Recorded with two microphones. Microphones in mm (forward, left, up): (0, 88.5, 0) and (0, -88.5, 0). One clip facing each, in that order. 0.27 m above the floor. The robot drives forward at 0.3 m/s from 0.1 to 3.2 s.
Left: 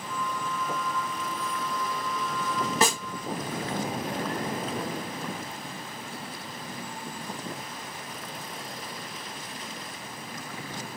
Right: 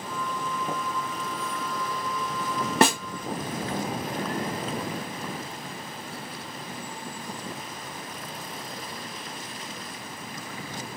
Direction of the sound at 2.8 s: 60° right (ahead or behind).